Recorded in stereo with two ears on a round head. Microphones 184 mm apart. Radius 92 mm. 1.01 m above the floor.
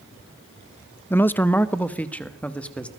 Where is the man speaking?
10° left (ahead or behind), 0.5 m; by 2.9 s 5° left (ahead or behind), 1.6 m.